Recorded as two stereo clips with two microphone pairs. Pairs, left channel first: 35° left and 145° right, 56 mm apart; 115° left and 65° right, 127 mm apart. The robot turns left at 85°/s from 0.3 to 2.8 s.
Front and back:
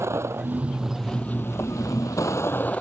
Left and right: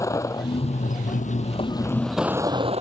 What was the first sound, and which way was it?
A vehicle, straight behind.